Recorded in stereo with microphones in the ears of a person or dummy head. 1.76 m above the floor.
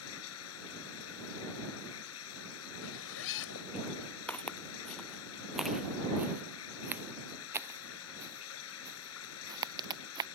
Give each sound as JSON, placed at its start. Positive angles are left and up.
{"t": 0.0, "sound": "running water", "side_deg": 85}
{"t": 2.8, "sound": "a zipper", "side_deg": 65}
{"t": 4.3, "sound": "footsteps", "side_deg": 10}